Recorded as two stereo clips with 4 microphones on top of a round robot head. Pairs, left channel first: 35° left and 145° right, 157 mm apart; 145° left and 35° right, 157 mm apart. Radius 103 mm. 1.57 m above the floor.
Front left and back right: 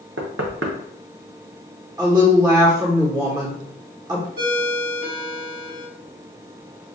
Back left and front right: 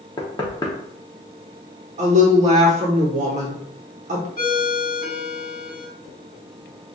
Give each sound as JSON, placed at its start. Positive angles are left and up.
{"t": 0.2, "sound": "knocking", "azimuth_deg": -150, "distance_m": 0.6}
{"t": 2.0, "sound": "a woman speaking", "azimuth_deg": -80, "distance_m": 0.9}
{"t": 4.4, "sound": "a ringtone", "azimuth_deg": -170, "distance_m": 1.8}